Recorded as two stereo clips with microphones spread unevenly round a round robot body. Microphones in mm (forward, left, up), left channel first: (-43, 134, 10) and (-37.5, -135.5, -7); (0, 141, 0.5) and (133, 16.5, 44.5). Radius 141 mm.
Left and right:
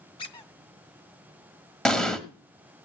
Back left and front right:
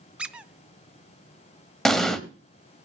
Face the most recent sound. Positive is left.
turn(degrees=15)